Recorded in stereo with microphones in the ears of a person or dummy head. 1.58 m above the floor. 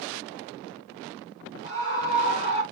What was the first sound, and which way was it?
A scream, 60° left (ahead or behind).